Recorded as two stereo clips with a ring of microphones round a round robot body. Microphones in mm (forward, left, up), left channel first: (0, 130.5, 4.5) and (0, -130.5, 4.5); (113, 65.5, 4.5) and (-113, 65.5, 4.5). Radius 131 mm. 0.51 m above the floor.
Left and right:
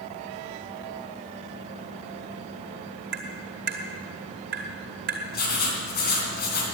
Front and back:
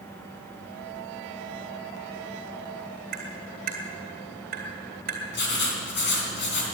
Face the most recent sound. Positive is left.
turn(degrees=35)